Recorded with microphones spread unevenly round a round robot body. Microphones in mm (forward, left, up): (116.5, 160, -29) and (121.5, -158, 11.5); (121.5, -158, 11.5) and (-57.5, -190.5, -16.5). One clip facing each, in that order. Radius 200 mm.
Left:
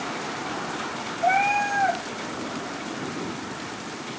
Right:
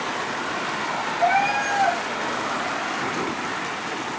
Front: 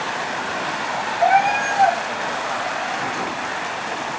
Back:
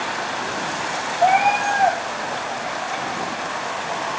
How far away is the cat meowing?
About 5 m.